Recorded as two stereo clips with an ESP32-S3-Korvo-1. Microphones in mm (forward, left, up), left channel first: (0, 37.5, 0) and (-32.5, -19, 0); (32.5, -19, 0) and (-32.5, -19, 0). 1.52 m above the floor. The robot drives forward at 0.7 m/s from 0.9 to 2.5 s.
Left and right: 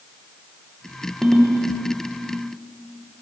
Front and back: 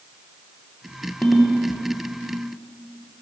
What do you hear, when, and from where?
1.2 s a ringtone: 45° right, 0.6 m; by 1.6 s 90° right, 0.5 m